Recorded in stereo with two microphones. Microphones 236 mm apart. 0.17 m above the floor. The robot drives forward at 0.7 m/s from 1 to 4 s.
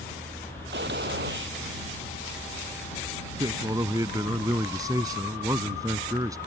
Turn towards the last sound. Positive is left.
turn(degrees=-15)  # may be behind; listen again after turning